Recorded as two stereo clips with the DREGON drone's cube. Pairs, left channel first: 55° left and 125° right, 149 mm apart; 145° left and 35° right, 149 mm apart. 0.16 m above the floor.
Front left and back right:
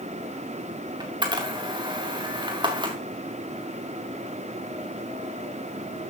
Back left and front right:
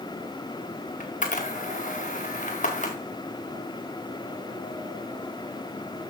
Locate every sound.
1.0 s a camera shutter: 175° left, 2.5 m